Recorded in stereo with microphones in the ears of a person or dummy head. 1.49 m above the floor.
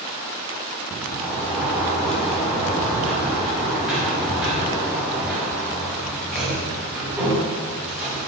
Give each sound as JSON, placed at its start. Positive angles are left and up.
{"t": 1.0, "sound": "a sliding door", "side_deg": 0, "distance_m": 3.5}